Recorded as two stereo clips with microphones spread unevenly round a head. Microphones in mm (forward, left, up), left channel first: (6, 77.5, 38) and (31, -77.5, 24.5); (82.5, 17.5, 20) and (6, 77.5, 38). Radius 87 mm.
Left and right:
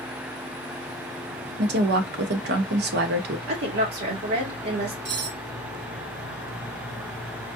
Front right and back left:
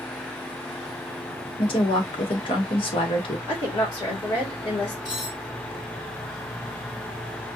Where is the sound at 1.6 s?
80° right, 0.9 m.